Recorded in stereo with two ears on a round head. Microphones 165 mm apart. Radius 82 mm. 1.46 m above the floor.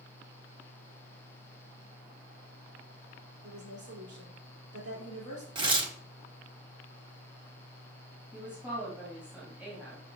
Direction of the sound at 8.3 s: 10° right (ahead or behind).